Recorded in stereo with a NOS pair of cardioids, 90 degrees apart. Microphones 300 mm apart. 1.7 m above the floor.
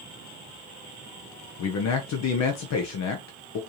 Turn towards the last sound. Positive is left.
turn(degrees=65)